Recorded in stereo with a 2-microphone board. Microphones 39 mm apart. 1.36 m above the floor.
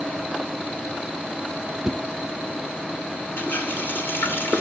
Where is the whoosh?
5° right (ahead or behind), 0.7 m.